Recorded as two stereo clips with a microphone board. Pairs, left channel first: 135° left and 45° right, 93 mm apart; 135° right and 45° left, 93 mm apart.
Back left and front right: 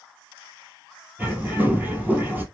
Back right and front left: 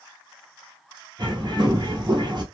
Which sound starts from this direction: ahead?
A bird, at 1.2 s.